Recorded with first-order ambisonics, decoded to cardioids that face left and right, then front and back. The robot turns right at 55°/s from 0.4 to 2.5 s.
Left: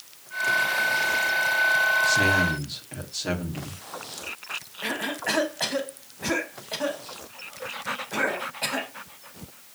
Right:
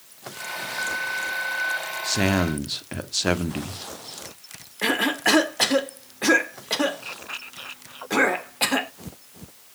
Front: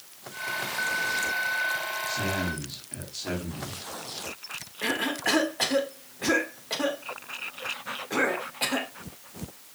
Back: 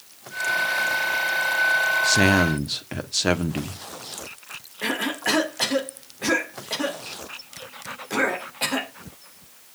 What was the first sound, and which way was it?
A man speaking, 170° right.